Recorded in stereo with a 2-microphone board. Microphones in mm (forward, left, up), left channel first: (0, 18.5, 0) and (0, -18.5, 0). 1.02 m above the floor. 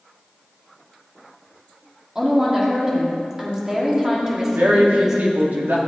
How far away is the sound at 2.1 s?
About 2.0 m.